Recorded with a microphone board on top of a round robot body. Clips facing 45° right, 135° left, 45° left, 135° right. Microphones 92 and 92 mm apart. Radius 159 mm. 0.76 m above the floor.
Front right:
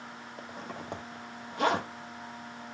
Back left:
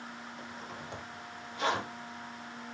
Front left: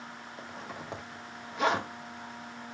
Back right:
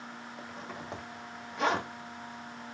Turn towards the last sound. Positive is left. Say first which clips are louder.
# front right 6 dB, front left 1 dB
turn(degrees=-45)